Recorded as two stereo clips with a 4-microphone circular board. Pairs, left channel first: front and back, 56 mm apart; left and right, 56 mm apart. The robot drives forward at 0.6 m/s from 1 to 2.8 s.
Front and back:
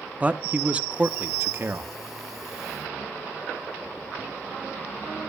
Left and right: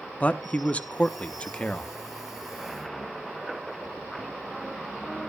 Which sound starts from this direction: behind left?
A man speaking, at 0.2 s.